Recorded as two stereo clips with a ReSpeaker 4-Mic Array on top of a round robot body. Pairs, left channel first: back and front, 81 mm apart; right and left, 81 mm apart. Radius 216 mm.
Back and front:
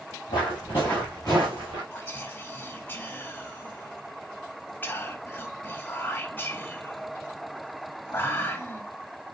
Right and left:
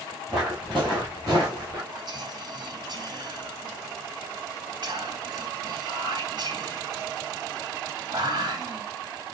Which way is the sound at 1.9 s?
115° left.